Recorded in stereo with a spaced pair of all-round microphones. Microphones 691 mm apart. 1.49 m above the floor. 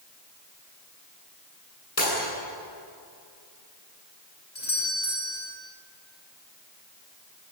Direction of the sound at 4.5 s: 90° left.